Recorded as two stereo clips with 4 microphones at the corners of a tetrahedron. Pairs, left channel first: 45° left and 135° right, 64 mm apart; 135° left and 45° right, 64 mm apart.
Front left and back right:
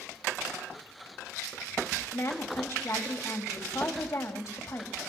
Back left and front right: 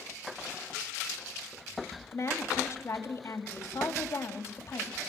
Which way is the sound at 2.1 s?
85° left.